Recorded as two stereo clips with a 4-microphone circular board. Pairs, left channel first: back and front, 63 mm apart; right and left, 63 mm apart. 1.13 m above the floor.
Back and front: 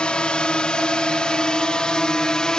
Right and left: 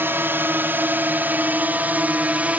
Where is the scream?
No scream in this recording.